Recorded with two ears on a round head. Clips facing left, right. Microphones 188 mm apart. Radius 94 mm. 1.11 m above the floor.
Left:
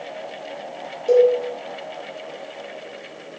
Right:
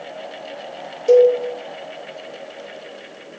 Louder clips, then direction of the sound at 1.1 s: Right 3 dB; 40° right (ahead or behind).